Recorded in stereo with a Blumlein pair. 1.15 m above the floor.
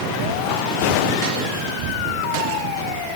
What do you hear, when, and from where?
1.7 s a child speaking: 40° right, 6 m; by 3.2 s 45° right, 8 m